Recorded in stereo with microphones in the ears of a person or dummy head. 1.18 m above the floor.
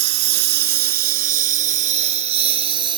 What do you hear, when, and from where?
0.0 s a lawn mower: 70° right (ahead or behind); by 3.0 s 30° right (ahead or behind)